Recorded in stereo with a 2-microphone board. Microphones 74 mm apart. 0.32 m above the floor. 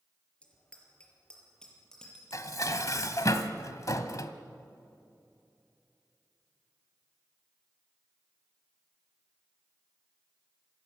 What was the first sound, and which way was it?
A bicycle bell, 15° left (ahead or behind).